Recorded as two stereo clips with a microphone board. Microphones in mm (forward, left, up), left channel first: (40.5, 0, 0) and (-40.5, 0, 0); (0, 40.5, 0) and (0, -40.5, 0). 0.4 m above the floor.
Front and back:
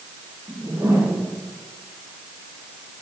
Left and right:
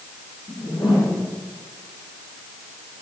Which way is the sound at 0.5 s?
110° left.